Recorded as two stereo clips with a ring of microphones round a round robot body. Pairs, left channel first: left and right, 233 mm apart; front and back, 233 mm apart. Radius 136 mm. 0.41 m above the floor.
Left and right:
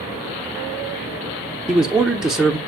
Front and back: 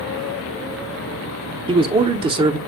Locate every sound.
1.7 s a man speaking: 175° right, 0.9 m